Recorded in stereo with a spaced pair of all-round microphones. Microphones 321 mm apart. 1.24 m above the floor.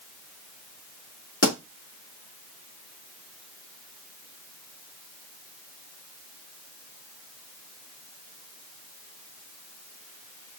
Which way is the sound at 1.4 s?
45° left (ahead or behind).